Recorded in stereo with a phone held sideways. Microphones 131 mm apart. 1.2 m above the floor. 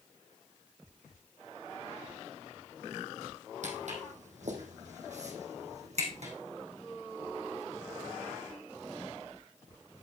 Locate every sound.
3.6 s footsteps: 65° right (ahead or behind), 3 m; by 6.3 s 60° right (ahead or behind), 3.5 m